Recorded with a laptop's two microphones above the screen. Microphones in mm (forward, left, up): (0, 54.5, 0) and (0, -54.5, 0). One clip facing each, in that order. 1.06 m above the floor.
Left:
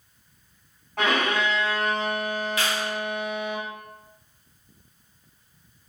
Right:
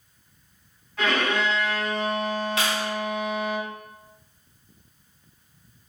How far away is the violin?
About 1.6 m.